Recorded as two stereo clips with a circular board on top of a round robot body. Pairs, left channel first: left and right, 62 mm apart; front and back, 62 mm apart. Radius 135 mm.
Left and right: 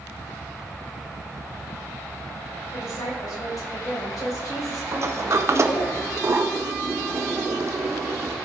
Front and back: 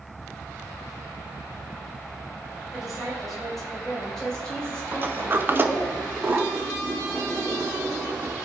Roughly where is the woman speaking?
Left.